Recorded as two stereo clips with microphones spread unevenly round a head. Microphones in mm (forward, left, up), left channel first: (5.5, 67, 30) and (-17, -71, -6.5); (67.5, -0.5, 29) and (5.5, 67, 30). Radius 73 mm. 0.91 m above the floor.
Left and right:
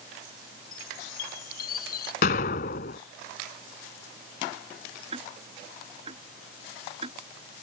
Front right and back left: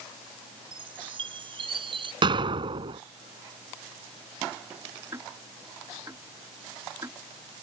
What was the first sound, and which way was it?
A chime, 105° left.